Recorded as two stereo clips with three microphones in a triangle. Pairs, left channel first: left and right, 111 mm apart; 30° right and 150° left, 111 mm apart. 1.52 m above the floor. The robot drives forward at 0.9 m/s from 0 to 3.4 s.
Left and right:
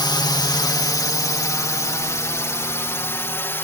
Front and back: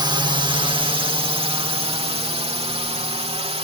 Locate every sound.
0.0 s a drone: 125° left; by 3.6 s 155° left